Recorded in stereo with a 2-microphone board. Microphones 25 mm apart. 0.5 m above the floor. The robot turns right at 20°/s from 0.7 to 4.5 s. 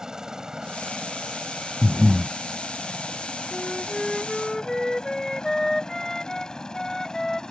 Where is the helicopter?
25° right (ahead or behind); by 7.5 s 25° left (ahead or behind).